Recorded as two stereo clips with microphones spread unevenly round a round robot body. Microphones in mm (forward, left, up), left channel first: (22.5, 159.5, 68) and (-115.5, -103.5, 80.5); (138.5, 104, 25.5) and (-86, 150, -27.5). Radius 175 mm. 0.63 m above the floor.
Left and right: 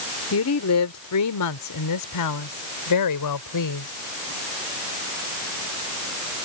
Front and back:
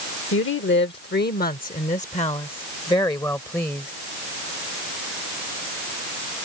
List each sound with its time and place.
0.3 s a woman speaking: 25° left; by 3.9 s 75° left